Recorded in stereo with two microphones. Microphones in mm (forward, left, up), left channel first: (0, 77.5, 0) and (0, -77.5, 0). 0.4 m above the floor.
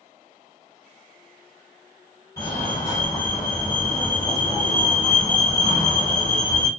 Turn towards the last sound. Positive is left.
turn(degrees=25)  # may be behind; listen again after turning